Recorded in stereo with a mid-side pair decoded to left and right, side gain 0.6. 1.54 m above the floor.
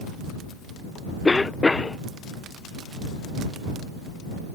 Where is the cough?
15° left.